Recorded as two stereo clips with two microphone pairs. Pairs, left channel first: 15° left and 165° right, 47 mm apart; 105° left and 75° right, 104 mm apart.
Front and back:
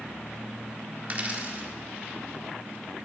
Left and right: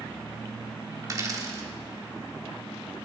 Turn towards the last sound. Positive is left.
turn(degrees=-120)